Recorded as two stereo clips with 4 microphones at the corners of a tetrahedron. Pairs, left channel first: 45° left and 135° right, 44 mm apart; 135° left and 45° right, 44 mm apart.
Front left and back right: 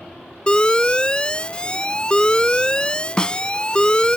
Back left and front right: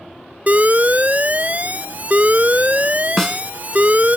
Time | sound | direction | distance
0.5 | an alarm | 15° right | ?
3.2 | a snare drum | 70° left | ?